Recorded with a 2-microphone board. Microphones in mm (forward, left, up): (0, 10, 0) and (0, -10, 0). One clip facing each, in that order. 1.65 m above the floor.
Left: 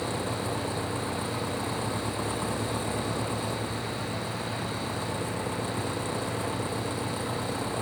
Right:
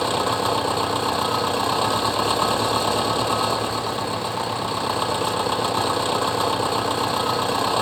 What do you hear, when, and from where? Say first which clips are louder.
0.0 s an engine running: right 10 dB; 65° right (ahead or behind)